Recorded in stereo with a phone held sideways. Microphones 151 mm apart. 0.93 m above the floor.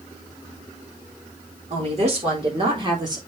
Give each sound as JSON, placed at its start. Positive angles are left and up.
{"t": 1.7, "sound": "a woman speaking", "side_deg": -50, "distance_m": 3.5}